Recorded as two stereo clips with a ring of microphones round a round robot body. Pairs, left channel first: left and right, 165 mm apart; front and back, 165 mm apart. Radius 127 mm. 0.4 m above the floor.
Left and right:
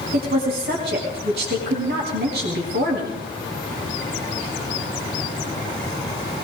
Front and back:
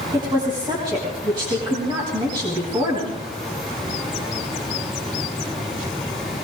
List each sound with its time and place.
0.1 s a woman speaking: 115° right, 4 m